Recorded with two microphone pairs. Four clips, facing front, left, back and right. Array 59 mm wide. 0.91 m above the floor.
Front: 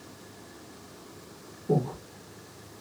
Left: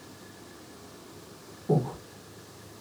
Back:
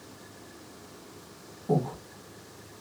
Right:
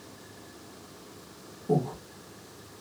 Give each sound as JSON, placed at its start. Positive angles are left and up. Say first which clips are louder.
{"t": 1.7, "sound": "breathing", "louder": "even, even", "azimuth_deg": 150, "distance_m": 2.0}